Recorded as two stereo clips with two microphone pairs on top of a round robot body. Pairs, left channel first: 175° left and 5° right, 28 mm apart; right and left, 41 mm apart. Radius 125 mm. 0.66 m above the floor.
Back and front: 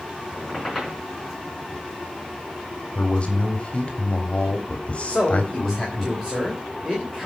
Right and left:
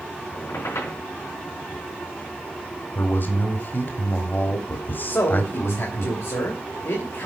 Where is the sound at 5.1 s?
95° right, 3 m.